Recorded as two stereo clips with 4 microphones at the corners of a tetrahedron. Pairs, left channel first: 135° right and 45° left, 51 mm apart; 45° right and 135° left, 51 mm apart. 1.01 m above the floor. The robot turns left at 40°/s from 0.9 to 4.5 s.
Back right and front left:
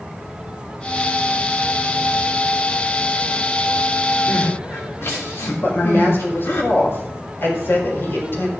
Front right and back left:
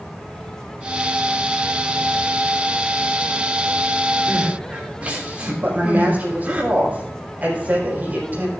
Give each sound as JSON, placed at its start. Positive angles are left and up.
{"t": 4.3, "sound": "crying", "azimuth_deg": -155, "distance_m": 2.5}
{"t": 5.6, "sound": "a woman speaking", "azimuth_deg": -170, "distance_m": 5.0}